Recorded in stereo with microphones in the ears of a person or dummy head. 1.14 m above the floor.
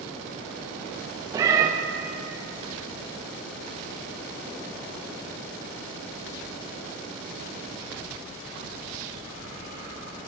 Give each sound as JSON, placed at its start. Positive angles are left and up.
{"t": 1.3, "sound": "a cat meowing", "side_deg": -20, "distance_m": 0.5}